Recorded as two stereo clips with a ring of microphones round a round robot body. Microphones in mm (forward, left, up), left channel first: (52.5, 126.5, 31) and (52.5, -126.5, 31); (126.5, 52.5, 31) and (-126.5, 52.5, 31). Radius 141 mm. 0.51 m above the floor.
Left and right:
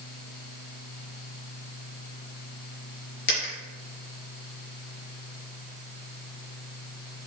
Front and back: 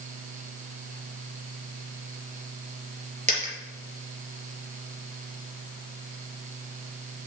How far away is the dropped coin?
About 4.5 m.